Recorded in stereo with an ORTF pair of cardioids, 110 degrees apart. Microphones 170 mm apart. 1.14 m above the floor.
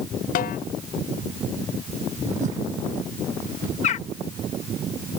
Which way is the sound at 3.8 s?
45° left.